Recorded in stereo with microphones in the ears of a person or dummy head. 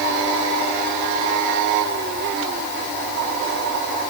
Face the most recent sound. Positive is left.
No sound to turn to.